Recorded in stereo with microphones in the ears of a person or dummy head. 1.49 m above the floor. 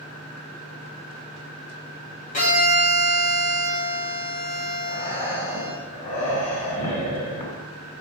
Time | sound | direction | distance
2.3 | a violin | 40° left (ahead or behind) | 1.2 m
4.9 | breathing | 50° left (ahead or behind) | 3 m